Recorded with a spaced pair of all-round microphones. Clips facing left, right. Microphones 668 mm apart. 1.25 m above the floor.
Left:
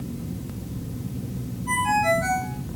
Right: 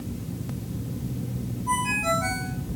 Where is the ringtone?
55° right (ahead or behind), 7 m.